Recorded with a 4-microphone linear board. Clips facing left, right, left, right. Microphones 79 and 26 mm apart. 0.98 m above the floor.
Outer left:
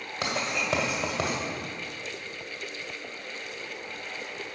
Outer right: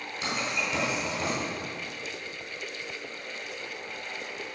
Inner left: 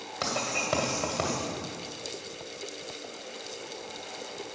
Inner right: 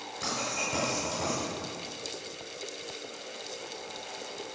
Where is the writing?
80° left, 1.8 m.